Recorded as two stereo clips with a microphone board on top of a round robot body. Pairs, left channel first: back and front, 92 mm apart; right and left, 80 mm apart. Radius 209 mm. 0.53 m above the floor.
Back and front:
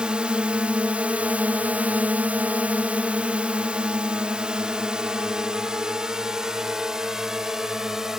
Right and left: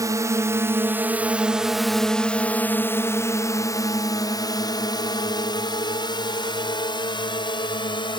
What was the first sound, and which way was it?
A drone, 75° left.